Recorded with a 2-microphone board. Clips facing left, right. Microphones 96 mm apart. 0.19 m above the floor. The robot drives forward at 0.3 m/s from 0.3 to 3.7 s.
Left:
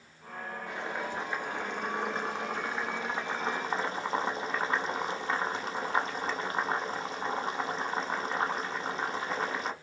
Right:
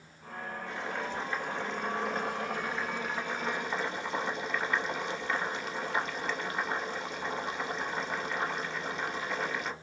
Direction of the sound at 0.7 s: 15° left (ahead or behind).